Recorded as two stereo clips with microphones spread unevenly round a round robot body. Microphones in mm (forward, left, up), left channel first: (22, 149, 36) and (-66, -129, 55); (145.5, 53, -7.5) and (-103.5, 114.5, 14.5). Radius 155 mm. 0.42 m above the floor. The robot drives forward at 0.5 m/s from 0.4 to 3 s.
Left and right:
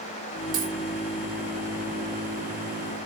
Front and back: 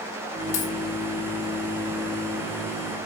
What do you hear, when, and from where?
0.5 s a dropped coin: 30° right, 3 m